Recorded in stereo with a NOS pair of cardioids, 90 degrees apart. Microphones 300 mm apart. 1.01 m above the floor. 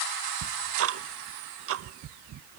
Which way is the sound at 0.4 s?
50° right.